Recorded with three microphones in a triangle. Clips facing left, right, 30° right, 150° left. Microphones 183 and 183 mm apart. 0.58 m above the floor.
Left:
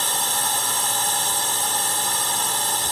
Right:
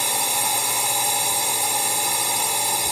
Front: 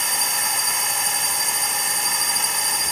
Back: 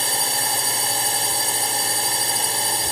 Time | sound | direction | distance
0.0 | a drone | 165° right | ?